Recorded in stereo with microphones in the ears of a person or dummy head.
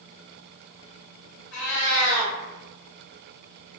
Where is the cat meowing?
70° left (ahead or behind), 1.5 m.